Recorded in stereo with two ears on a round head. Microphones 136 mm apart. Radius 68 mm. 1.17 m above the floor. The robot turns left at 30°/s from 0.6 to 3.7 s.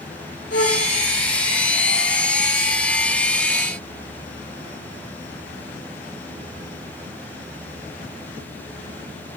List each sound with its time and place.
0.5 s a flute: 65° left (ahead or behind), 5.5 m; by 0.9 s 60° left (ahead or behind), 5.5 m